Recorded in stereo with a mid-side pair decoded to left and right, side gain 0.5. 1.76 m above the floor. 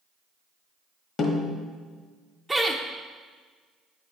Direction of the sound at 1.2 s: 50° left.